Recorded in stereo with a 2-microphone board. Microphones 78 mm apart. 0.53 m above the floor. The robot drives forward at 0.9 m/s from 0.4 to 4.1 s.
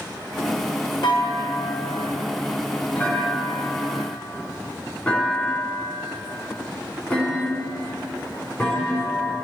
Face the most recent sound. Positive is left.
turn(degrees=15)  # may be behind; listen again after turning